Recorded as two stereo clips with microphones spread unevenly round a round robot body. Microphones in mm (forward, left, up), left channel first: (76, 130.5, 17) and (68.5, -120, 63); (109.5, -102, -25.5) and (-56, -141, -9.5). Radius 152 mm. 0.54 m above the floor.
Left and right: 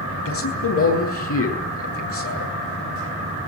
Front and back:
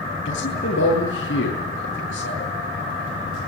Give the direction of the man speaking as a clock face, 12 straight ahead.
10 o'clock.